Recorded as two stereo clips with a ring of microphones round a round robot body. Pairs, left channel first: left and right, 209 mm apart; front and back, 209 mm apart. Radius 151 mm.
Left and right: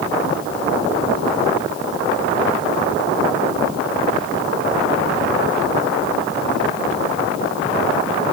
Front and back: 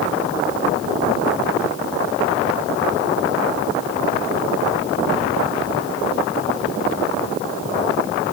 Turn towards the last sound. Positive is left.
No sound to turn to.